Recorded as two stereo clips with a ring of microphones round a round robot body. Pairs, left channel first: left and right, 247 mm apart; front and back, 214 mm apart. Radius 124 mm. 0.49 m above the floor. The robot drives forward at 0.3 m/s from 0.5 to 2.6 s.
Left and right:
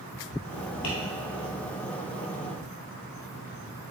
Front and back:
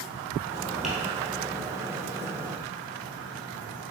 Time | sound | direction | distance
0.8 | tapping | 90° left | 1.8 m